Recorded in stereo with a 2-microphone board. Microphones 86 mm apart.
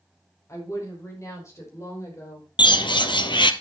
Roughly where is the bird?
Left.